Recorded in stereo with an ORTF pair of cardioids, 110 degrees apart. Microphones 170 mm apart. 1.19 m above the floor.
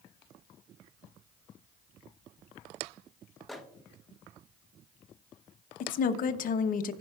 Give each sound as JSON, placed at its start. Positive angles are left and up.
{"t": 3.5, "sound": "a microwave", "azimuth_deg": 0, "distance_m": 1.0}
{"t": 5.8, "sound": "a woman speaking", "azimuth_deg": 55, "distance_m": 0.9}